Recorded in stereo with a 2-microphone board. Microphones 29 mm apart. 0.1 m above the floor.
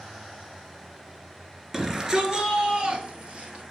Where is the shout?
15° right (ahead or behind), 1.2 m; by 3.6 s 40° right (ahead or behind), 1.9 m.